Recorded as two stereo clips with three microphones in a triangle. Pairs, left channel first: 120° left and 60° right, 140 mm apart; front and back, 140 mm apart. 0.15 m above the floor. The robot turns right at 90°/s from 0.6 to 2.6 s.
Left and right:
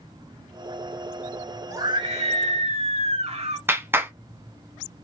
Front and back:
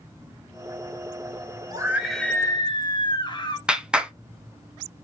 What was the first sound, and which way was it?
A scream, 125° right.